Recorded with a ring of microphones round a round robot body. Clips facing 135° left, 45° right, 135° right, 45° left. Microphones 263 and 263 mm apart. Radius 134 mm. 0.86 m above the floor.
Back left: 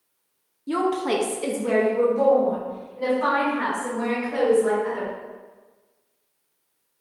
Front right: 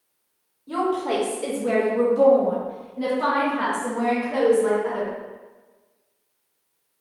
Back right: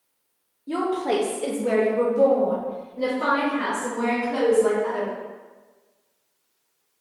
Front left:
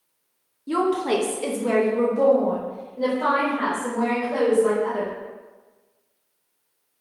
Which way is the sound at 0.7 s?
105° left.